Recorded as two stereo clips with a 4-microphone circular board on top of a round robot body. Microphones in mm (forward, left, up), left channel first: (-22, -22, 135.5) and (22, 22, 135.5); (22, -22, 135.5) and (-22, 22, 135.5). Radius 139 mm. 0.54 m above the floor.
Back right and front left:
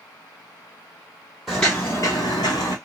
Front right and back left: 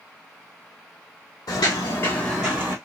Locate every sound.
1.5 s footsteps: 50° right, 1.1 m; by 2.8 s 170° right, 1.1 m